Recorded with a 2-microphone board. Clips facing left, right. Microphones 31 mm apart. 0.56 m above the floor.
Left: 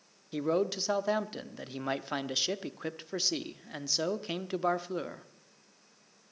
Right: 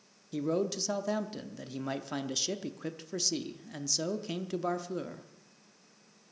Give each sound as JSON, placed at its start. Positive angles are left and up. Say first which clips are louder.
{"t": 0.3, "sound": "a man speaking", "louder": "left 2 dB", "side_deg": 25, "distance_m": 0.7}